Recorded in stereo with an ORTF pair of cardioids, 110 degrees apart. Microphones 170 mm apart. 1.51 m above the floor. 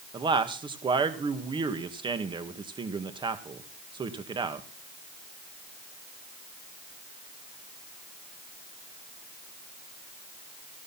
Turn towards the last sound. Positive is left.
turn(degrees=-30)